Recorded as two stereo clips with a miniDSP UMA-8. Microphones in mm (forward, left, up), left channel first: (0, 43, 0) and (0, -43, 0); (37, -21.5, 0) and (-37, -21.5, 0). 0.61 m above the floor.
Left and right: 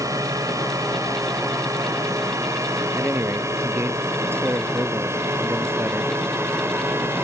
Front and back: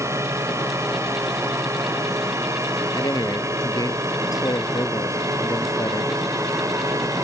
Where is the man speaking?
30° right.